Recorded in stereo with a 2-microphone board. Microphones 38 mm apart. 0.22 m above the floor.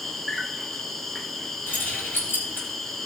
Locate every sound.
0.0 s an insect: 5° left (ahead or behind), 1.1 m
1.7 s keys jangling: 65° left (ahead or behind), 5 m